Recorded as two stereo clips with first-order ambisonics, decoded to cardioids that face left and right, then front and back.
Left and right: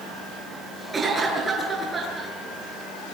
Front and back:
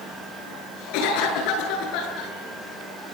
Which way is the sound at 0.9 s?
15° right.